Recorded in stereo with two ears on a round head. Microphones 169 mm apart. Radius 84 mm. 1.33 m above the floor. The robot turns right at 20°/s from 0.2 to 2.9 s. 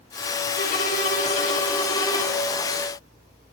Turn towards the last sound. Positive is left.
turn(degrees=175)